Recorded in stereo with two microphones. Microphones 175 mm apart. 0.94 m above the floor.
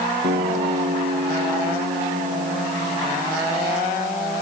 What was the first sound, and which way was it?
A guitar, 85° right.